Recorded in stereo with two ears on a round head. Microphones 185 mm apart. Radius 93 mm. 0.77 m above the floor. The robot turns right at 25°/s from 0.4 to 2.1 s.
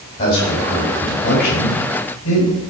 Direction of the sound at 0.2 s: 25° left (ahead or behind).